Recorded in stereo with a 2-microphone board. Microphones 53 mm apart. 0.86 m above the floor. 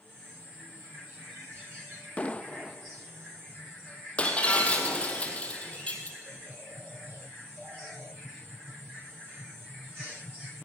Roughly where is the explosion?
Left.